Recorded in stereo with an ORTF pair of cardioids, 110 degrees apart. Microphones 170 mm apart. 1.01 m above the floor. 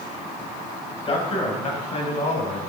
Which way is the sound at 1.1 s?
35° left.